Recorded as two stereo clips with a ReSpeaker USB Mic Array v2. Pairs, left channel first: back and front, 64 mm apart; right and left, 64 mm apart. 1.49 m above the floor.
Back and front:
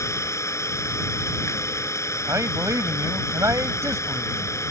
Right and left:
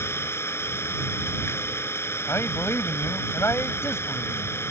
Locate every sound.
0.0 s an engine running: 140° right
2.3 s a man speaking: 40° right